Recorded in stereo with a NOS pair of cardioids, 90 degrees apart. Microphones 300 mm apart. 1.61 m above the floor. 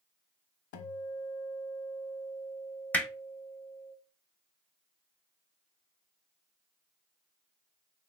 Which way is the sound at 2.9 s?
5° left.